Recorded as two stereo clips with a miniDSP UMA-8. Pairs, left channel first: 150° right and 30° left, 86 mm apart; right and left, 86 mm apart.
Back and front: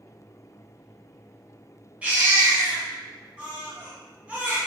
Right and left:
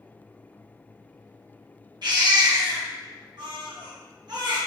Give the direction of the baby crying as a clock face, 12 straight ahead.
9 o'clock.